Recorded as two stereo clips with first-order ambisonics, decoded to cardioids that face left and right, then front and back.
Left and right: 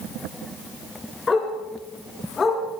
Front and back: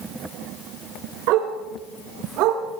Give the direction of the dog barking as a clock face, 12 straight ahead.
7 o'clock.